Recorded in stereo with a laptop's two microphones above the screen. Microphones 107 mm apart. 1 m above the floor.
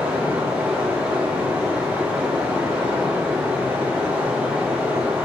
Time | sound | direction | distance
0.0 | running water | 10° right (ahead or behind) | 0.9 m